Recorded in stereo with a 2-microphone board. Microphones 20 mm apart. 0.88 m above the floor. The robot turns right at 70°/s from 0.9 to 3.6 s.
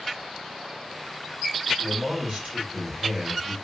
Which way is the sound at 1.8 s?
130° right.